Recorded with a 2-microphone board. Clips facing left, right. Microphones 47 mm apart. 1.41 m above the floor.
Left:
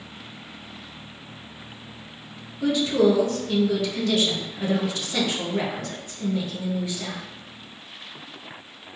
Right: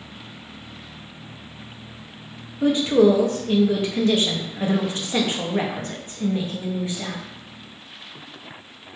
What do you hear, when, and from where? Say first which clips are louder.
2.6 s a woman speaking: right 3 dB; 30° right (ahead or behind), 0.5 m